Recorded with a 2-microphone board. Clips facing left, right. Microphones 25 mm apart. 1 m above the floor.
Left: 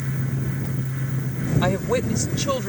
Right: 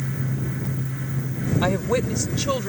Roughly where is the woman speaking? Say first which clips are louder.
Even; centre.